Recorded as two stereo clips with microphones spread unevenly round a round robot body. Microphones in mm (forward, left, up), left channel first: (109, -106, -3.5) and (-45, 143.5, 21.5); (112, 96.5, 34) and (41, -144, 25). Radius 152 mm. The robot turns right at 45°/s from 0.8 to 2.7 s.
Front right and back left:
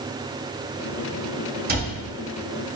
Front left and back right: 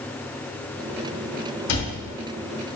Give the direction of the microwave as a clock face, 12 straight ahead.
I don't hear a microwave.